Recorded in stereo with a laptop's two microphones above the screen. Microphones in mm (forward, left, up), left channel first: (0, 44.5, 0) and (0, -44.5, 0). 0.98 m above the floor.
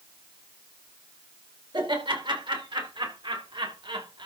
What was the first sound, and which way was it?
Laughter, 75° right (ahead or behind).